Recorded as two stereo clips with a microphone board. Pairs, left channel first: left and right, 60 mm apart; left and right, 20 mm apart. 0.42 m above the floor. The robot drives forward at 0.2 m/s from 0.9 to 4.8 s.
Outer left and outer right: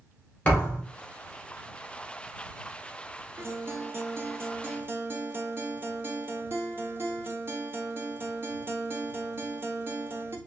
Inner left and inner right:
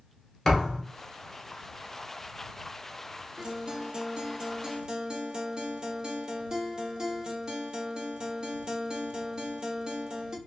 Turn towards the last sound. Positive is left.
turn(degrees=-35)  # may be behind; listen again after turning